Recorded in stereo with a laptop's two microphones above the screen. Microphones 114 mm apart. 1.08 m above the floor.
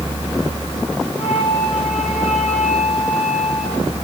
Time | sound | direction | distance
1.2 | a flute | 80° left | 5 m